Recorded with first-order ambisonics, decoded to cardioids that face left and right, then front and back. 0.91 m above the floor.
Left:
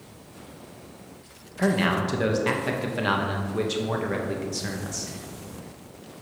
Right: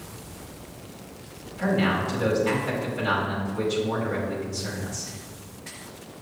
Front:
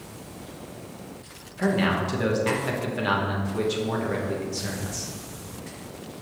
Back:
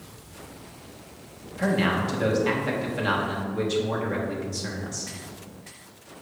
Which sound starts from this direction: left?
A man speaking, at 1.6 s.